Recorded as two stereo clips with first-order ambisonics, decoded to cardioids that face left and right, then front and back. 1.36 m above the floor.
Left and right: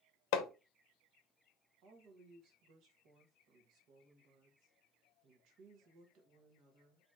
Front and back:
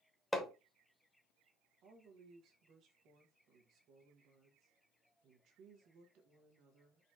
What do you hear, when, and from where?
0.3 s hammering: 85° left, 0.8 m
1.8 s a woman speaking: 130° right, 1.3 m